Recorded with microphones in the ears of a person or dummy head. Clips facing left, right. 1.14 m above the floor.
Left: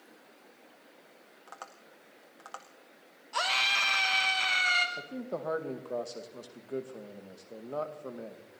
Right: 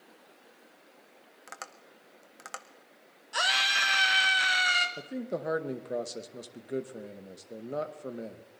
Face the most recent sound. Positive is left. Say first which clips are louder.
# right 6 dB
turn(degrees=-25)  # may be behind; listen again after turning